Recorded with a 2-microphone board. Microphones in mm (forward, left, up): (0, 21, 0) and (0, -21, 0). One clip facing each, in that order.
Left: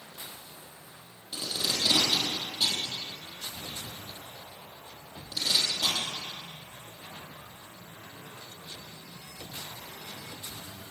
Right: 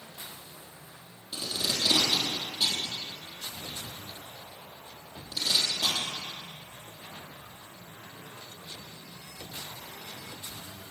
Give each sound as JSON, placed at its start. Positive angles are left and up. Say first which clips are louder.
{"t": 1.3, "sound": "tape being pulled", "louder": "even", "side_deg": 5, "distance_m": 3.5}